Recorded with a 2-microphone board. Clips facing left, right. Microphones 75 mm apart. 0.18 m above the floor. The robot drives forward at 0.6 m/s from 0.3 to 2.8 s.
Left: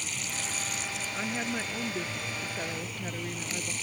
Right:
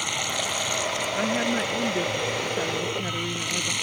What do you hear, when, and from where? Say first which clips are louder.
0.0 s running water: right 9 dB; 70° right (ahead or behind); by 3.8 s 75° right (ahead or behind)
1.1 s a woman speaking: right 8 dB; 25° right (ahead or behind); by 3.7 s 20° right (ahead or behind)